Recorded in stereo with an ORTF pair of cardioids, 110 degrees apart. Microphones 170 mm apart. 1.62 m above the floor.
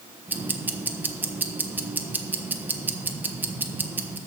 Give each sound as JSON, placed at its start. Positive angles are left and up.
{"t": 0.3, "sound": "ticking", "azimuth_deg": -10, "distance_m": 1.1}